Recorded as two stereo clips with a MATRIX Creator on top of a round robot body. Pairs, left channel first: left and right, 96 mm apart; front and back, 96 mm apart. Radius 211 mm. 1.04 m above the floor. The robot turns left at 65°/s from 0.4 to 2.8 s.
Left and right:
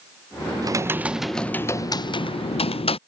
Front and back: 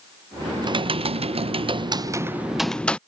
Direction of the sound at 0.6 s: 140° right.